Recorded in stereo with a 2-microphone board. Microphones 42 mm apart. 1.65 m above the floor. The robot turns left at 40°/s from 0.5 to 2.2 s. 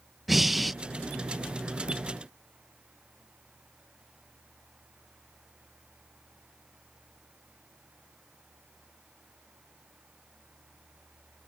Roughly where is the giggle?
I don't hear a giggle.